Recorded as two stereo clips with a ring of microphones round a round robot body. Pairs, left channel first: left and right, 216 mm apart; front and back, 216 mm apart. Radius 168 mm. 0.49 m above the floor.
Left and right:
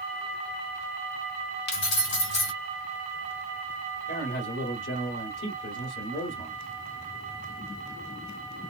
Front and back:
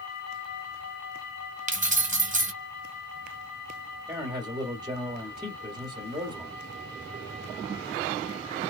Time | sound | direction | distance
1.7 | keys jangling | 125° left | 1.3 m
4.1 | a man speaking | 110° left | 1.9 m